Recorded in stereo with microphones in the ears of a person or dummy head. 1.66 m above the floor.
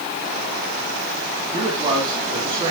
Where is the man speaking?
25° right (ahead or behind), 3.5 m.